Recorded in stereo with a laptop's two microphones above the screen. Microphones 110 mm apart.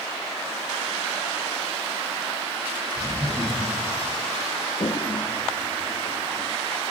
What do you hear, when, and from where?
3.0 s laughter: 10° left (ahead or behind), 7 m
4.8 s a toilet flushing: 45° left (ahead or behind), 0.9 m